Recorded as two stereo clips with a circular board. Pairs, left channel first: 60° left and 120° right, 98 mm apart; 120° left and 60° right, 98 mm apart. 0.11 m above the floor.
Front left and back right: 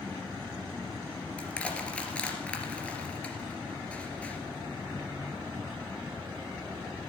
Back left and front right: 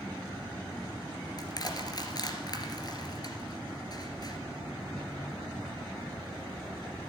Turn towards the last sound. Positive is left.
turn(degrees=135)